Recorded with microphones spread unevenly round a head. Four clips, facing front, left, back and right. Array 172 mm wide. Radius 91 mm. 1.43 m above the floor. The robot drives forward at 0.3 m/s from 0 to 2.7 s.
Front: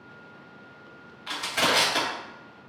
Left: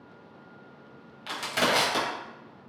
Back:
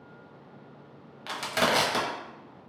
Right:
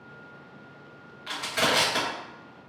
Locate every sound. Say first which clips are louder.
1.3 s crushing: even, even; 135° left, 0.9 m; by 2.1 s 145° left, 1.1 m